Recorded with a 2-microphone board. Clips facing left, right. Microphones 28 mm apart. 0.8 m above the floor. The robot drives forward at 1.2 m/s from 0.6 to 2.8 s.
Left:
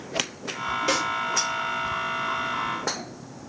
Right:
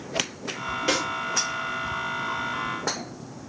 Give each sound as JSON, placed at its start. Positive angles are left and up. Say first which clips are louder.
{"t": 0.9, "sound": "a snare drum", "louder": "even", "side_deg": -10, "distance_m": 2.5}